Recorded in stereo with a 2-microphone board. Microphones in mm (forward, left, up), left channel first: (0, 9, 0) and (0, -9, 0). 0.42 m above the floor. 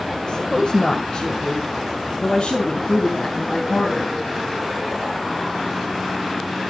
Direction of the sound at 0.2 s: 50° left (ahead or behind).